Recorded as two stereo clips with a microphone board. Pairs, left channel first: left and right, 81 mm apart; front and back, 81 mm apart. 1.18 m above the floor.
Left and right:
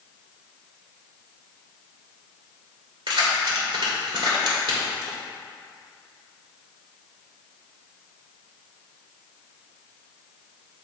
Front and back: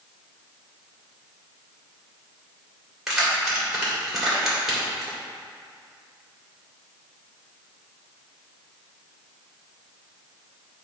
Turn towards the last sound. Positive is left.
turn(degrees=-95)